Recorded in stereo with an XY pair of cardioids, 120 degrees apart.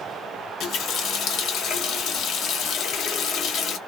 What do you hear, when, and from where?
0.6 s a running tap: 60° left, 0.8 m